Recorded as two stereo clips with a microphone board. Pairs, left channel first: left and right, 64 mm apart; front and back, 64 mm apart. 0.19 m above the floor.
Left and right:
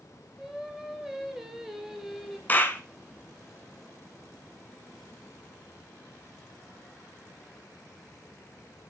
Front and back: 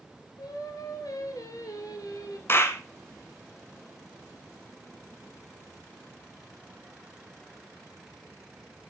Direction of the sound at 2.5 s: 40° left.